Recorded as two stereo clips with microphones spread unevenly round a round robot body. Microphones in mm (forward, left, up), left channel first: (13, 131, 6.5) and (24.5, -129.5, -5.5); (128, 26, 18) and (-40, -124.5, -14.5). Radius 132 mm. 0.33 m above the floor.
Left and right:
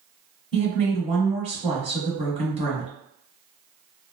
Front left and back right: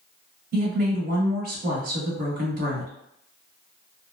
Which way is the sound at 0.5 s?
145° right.